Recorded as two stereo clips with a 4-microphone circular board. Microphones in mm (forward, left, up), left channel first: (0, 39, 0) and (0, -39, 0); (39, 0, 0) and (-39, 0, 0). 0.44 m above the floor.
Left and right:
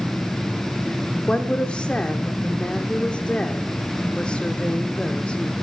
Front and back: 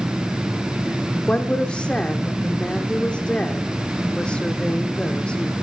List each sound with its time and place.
1.3 s a woman speaking: 45° left, 0.9 m